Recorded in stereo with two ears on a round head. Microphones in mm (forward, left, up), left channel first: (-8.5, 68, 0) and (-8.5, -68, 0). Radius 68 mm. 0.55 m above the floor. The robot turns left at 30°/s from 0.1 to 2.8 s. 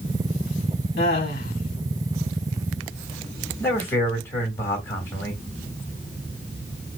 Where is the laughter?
75° left (ahead or behind), 3.5 m; by 1.5 s 60° left (ahead or behind), 3.5 m.